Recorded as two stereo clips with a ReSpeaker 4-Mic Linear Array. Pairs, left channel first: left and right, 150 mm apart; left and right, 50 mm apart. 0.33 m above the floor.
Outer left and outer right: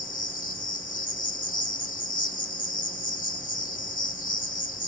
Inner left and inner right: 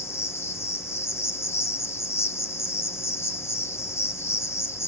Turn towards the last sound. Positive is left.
turn(degrees=65)  # may be behind; listen again after turning